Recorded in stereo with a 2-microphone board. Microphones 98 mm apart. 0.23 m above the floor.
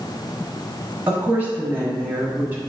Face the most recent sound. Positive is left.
turn(degrees=-20)  # may be behind; listen again after turning